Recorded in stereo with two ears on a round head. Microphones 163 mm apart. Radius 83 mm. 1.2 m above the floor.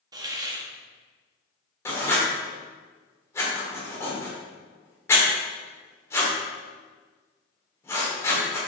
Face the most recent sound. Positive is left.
turn(degrees=15)  # may be behind; listen again after turning